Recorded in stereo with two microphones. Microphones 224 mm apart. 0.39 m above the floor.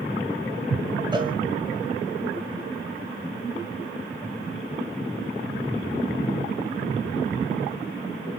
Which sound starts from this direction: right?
A cowbell, at 1.1 s.